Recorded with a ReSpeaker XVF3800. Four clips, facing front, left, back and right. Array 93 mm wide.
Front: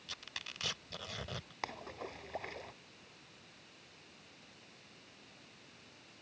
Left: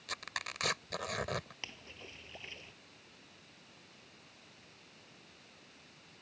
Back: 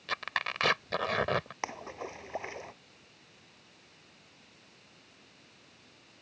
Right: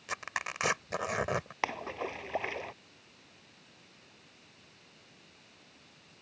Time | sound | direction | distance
0.1 | tearing paper | 155° right | ?
1.6 | a splash | 105° right | ?